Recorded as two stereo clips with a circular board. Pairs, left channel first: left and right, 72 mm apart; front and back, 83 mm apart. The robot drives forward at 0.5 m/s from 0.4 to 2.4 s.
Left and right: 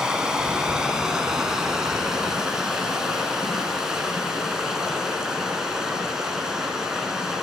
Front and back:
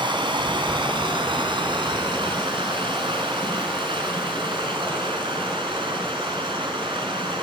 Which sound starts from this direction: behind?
Running water, at 0.0 s.